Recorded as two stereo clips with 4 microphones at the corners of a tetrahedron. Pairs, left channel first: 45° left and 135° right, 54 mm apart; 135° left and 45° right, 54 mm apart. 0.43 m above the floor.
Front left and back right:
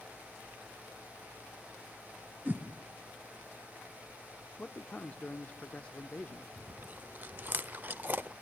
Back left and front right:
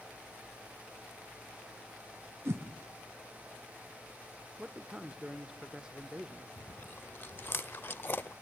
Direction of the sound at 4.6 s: 15° left.